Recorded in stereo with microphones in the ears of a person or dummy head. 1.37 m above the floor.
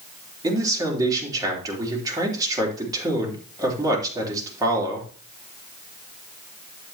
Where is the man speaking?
30° right (ahead or behind), 3.5 m.